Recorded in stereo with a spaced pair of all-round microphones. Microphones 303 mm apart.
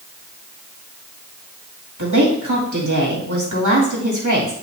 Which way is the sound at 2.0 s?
70° right (ahead or behind).